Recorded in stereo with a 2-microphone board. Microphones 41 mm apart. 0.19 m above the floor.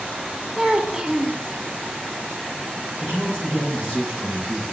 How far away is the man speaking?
About 3.5 m.